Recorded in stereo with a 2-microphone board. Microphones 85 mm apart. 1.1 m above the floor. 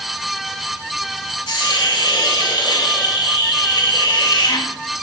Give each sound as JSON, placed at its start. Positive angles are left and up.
{"t": 1.5, "sound": "a hiss", "side_deg": 75, "distance_m": 2.0}